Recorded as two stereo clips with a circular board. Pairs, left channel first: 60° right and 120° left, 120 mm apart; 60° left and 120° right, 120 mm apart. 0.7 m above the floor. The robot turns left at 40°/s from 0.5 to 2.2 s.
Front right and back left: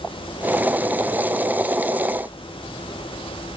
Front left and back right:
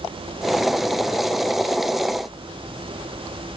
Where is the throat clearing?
I don't hear throat clearing.